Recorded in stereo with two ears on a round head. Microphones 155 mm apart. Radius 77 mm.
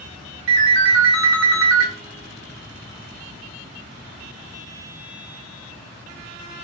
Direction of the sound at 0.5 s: 75° right (ahead or behind).